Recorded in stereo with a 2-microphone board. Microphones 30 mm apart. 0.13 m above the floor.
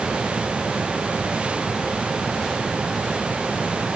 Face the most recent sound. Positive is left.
No sound to turn to.